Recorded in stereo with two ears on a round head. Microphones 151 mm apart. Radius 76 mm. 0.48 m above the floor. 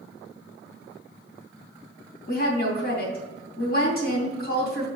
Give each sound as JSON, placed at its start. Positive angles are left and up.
{"t": 2.3, "sound": "a woman speaking", "side_deg": 65, "distance_m": 2.5}